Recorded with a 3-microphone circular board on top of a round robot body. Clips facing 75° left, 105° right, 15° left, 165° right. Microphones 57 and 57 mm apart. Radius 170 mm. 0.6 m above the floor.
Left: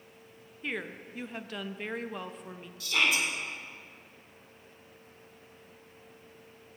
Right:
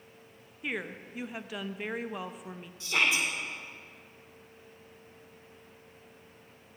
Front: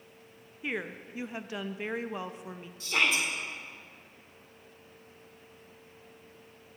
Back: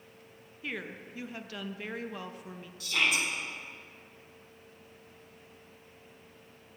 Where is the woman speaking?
30° right, 0.6 m.